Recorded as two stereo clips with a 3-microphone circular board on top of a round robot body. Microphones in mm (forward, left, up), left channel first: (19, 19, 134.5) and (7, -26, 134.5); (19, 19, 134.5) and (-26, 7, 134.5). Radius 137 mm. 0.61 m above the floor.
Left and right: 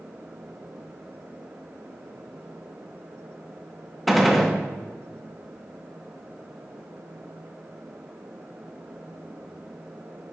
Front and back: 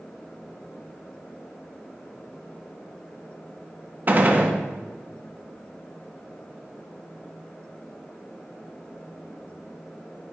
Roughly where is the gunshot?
Behind.